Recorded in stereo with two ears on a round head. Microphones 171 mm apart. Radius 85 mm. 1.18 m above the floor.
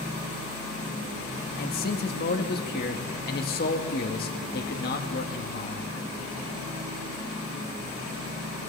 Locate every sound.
1.6 s a man speaking: 50° left (ahead or behind), 1.8 m